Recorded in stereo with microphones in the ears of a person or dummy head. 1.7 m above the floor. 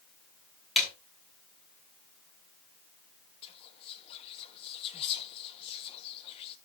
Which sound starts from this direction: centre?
A snare drum, at 0.8 s.